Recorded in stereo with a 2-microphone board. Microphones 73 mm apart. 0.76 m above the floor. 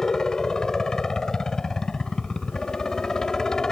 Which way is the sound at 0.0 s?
10° left (ahead or behind).